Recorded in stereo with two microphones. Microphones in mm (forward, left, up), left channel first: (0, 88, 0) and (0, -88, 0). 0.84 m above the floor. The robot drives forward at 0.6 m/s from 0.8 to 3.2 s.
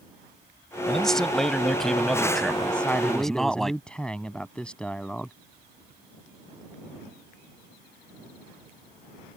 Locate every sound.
0.9 s a man speaking: 5° left (ahead or behind); by 3.7 s centre (ahead or behind)
2.7 s a man speaking: 5° left (ahead or behind)